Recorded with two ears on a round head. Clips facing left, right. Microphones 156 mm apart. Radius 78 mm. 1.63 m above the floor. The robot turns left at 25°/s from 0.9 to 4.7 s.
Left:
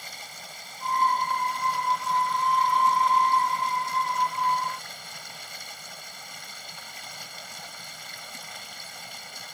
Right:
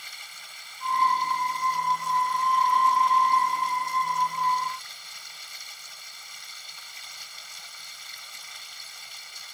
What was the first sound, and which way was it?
Running water, 140° left.